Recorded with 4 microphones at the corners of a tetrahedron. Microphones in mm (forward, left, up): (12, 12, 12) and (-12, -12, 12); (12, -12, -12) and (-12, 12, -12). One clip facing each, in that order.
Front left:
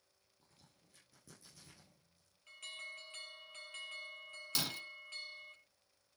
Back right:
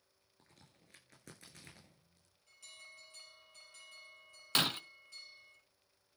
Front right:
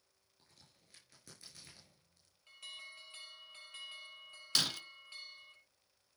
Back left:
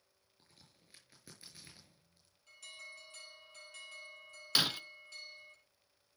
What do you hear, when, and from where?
0.4 s a crack: 150° right, 6 m
2.5 s an alarm: 10° left, 5 m
4.5 s breaking glass: 160° right, 0.7 m